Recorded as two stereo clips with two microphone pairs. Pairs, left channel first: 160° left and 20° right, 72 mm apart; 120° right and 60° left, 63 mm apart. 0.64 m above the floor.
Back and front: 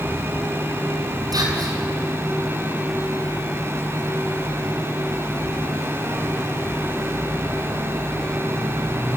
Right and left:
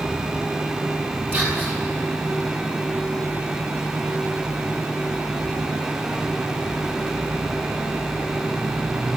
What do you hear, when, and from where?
1.3 s whispering: 5° left, 7 m